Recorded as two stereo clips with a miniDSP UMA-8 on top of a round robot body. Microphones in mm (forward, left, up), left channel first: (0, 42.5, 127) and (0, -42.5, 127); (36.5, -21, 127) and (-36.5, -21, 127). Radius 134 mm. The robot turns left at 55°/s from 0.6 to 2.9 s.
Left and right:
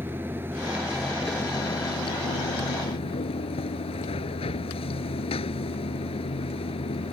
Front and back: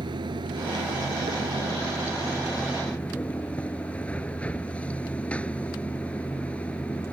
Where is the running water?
160° right; by 7.1 s 75° left.